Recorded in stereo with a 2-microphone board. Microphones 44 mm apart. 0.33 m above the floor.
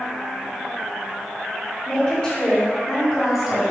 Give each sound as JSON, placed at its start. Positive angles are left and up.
{"t": 1.9, "sound": "a woman speaking", "side_deg": 25, "distance_m": 1.5}